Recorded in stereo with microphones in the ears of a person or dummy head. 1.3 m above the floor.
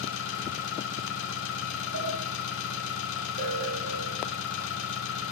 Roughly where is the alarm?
Right.